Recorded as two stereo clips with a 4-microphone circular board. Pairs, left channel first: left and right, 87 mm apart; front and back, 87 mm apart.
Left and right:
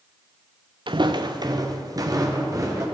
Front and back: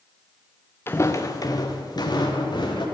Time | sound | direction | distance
0.9 | footsteps | 65° right | 0.9 m